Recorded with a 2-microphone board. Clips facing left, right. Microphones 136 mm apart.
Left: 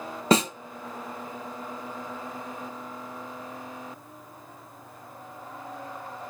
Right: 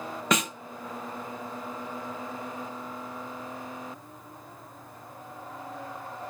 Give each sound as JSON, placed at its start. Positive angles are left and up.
{"t": 0.3, "sound": "a snare drum", "side_deg": 35, "distance_m": 0.6}